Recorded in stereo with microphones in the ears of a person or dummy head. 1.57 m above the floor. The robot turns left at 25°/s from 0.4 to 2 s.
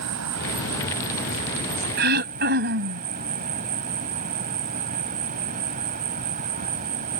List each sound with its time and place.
0.0 s an insect: 95° right; by 7.2 s 135° right
2.0 s throat clearing: 45° right (ahead or behind)